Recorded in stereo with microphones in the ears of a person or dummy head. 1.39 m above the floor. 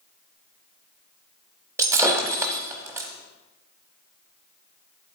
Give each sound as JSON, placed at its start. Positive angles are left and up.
{"t": 1.8, "sound": "breaking glass", "side_deg": -15, "distance_m": 1.0}